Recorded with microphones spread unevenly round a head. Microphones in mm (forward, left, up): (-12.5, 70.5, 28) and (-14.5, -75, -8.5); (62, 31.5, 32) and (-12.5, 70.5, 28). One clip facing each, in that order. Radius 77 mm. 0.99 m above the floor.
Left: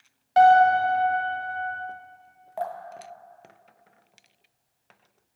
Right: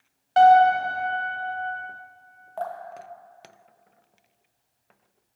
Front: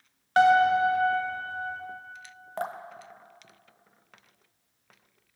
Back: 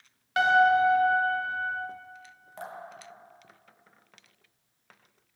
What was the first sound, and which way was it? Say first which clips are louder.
A piano: right 1 dB, front 1 dB; 15° left.